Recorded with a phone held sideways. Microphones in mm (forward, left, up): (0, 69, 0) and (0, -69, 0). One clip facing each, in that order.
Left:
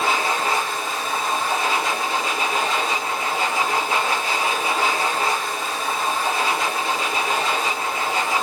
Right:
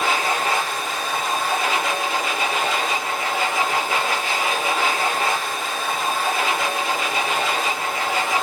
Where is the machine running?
35° left (ahead or behind), 1.5 m.